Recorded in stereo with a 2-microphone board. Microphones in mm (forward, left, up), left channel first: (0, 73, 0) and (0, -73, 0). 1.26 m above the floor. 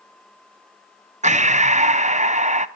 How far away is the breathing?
About 0.7 m.